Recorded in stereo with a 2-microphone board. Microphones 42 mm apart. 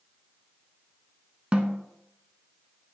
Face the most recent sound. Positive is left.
turn(degrees=-25)  # may be behind; listen again after turning